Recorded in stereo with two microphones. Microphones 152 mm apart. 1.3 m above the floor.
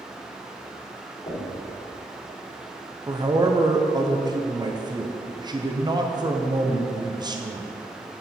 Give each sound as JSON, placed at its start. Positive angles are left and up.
{"t": 1.3, "sound": "knocking", "side_deg": 40, "distance_m": 2.5}
{"t": 3.1, "sound": "a man speaking", "side_deg": -30, "distance_m": 0.6}